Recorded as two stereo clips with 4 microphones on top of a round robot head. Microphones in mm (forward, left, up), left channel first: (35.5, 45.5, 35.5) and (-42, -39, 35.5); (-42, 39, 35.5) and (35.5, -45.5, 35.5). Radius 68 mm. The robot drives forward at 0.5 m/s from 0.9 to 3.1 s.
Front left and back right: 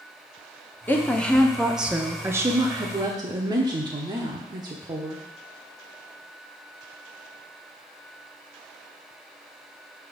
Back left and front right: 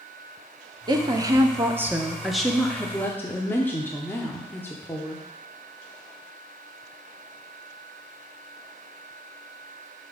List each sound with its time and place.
0.9 s a woman speaking: 20° right, 0.9 m; by 5.2 s 160° right, 0.9 m